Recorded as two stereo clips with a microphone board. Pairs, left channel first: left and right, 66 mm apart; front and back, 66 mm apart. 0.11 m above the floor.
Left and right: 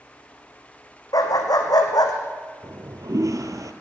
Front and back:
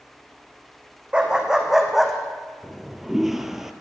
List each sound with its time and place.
1.1 s a dog barking: 105° left, 2 m; by 2.1 s 90° left, 2 m
2.6 s a toilet flushing: 95° right, 1.0 m